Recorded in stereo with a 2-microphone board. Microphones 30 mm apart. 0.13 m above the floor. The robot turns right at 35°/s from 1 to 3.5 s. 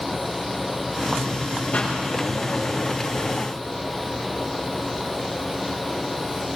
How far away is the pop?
About 9 m.